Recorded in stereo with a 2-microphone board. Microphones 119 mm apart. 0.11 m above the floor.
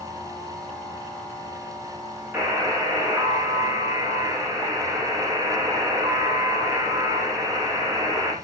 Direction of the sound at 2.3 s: 20° right (ahead or behind).